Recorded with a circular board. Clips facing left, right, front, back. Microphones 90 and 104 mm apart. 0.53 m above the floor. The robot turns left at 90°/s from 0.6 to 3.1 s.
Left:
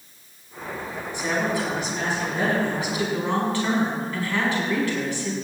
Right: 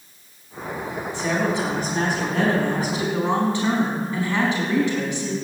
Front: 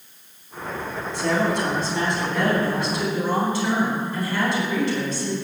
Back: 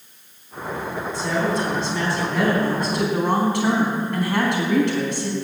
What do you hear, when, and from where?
1.1 s a woman speaking: 15° left, 4.5 m; by 5.3 s 160° right, 4.5 m